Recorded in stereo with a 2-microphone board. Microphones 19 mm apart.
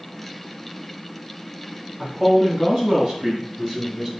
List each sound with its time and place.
2.0 s a man speaking: 50° right (ahead or behind), 2.5 m; by 4.1 s 40° right (ahead or behind), 1.5 m